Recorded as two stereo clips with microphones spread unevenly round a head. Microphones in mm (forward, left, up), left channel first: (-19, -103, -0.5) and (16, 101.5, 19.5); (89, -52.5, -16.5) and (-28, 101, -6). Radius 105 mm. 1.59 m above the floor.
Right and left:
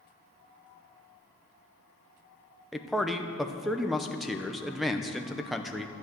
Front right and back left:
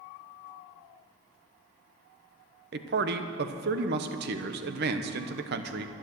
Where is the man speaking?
170° left, 0.8 m.